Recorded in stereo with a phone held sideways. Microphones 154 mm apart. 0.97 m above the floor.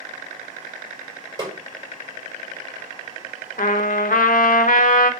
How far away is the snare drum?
About 3.5 m.